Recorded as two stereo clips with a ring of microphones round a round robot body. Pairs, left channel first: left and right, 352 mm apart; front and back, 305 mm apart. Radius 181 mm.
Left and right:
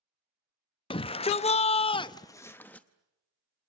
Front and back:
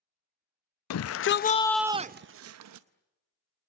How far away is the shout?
About 0.7 m.